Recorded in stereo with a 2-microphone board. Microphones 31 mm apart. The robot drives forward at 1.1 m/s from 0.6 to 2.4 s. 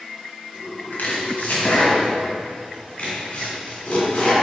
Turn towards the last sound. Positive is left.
turn(degrees=35)  # may be behind; listen again after turning